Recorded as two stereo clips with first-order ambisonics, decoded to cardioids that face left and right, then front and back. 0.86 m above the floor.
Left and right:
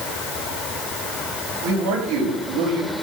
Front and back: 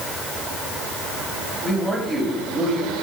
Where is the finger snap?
No finger snap in this recording.